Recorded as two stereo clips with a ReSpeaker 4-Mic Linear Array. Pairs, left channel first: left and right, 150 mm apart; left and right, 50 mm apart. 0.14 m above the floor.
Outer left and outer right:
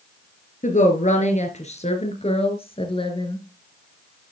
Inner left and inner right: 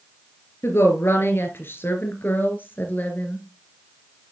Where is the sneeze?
I don't hear a sneeze.